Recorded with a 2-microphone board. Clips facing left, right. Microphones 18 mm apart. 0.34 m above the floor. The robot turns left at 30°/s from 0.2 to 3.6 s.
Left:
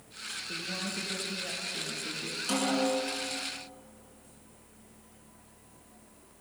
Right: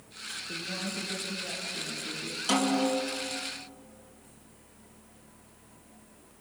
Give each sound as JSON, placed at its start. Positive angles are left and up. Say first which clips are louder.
{"t": 0.5, "sound": "a woman speaking", "louder": "right 1 dB", "azimuth_deg": -175, "distance_m": 6.0}
{"t": 2.5, "sound": "a snare drum", "louder": "right 2 dB", "side_deg": -25, "distance_m": 5.0}